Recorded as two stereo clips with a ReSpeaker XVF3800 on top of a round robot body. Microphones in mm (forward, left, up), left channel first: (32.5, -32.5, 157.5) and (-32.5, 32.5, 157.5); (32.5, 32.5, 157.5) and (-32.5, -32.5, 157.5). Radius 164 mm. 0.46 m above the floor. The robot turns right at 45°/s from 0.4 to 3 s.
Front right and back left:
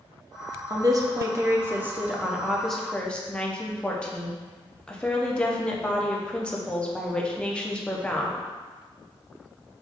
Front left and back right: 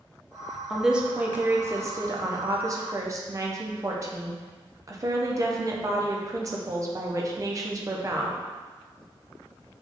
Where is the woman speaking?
140° left, 0.8 m; by 8.4 s 120° right, 0.8 m.